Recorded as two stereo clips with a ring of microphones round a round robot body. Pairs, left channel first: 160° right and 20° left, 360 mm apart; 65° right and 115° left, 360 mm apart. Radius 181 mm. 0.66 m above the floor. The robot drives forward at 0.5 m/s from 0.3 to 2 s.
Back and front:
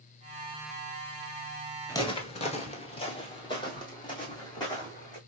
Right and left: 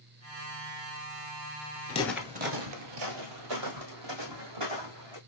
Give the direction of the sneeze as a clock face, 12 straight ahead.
No sneeze in this recording.